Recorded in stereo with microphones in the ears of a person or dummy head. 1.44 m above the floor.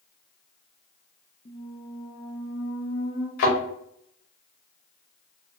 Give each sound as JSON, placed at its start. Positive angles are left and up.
{"t": 1.4, "sound": "a squeak", "side_deg": 25, "distance_m": 0.5}
{"t": 3.4, "sound": "a thud", "side_deg": 50, "distance_m": 1.2}